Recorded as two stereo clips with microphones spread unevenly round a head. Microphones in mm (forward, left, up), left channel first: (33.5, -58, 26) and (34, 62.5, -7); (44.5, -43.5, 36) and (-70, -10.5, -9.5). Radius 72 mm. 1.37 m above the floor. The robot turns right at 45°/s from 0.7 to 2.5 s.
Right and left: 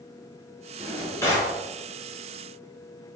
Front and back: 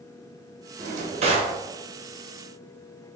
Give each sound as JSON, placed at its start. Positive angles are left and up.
{"t": 0.8, "sound": "a drawer", "azimuth_deg": -170, "distance_m": 0.7}